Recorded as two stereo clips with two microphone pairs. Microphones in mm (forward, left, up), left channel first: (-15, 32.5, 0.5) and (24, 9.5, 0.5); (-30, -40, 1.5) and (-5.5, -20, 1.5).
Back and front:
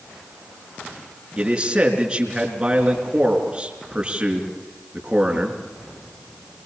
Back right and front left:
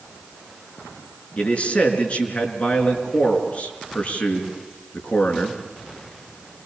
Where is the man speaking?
100° right, 4.5 m.